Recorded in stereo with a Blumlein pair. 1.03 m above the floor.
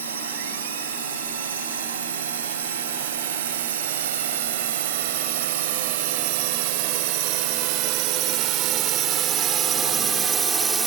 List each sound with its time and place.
0.0 s a drone: 65° right; by 10.9 s 15° right